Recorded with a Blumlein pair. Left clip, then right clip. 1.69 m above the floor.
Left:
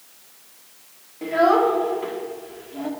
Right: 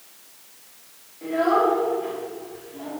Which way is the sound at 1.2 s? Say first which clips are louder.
Left 3 dB; 25° left.